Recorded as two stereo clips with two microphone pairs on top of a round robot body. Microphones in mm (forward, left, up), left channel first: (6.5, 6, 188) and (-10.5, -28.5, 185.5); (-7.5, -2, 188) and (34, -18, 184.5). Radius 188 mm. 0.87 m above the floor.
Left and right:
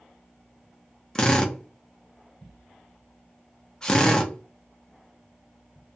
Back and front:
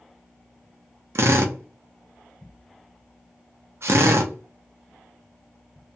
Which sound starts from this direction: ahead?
A drill, at 1.1 s.